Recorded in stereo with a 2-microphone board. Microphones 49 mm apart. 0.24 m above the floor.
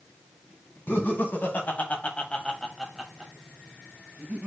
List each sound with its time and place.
0.9 s laughter: 50° left (ahead or behind), 1.5 m; by 4.5 s 35° right (ahead or behind), 1.4 m